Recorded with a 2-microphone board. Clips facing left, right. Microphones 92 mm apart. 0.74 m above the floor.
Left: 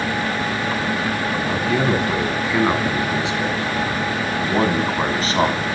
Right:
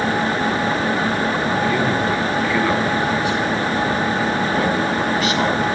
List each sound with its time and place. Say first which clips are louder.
1.5 s a man speaking: left 2 dB; 15° left (ahead or behind), 7 m; by 5.7 s 35° left (ahead or behind), 6 m